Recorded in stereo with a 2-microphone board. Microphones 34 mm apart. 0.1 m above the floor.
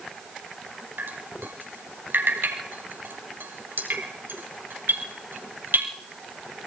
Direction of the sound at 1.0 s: 80° right.